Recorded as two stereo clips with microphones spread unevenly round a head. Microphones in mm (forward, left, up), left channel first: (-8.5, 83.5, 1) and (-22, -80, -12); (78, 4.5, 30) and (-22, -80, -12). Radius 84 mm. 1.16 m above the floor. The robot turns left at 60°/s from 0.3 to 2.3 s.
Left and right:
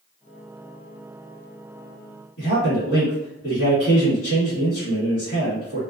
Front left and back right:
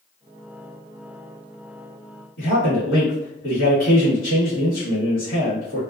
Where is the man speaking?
50° left, 1.3 m.